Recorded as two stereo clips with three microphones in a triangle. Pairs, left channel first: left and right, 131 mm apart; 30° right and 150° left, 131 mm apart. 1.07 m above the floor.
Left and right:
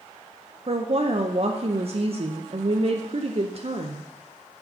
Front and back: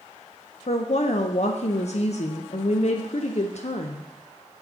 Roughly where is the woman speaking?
Ahead right.